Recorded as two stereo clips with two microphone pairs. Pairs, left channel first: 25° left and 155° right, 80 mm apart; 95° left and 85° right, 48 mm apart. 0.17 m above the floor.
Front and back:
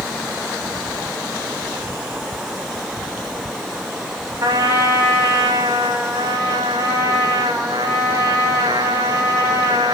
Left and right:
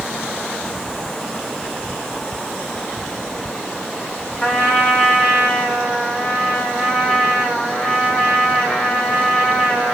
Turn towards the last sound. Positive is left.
turn(degrees=165)